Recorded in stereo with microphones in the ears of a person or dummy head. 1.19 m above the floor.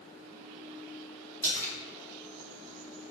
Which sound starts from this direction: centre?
A splash, at 1.4 s.